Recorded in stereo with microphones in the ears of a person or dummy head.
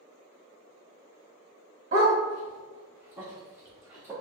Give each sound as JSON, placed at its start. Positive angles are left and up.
{"t": 1.9, "sound": "a dog barking", "side_deg": -25, "distance_m": 1.2}